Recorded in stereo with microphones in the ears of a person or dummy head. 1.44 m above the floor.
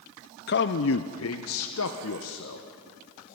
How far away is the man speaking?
About 0.6 m.